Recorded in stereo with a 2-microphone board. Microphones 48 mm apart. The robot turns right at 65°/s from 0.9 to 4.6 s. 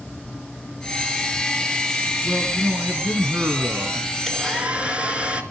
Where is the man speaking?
170° right, 3 m; by 4.1 s 50° right, 3 m.